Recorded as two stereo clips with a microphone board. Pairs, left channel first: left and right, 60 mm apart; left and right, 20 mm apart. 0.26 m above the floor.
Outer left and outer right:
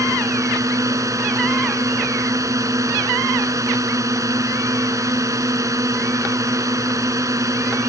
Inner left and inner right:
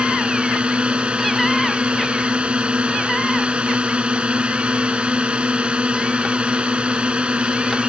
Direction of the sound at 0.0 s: 65° right (ahead or behind).